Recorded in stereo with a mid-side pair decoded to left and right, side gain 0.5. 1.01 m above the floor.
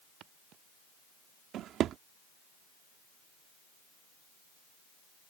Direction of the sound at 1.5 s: 65° right.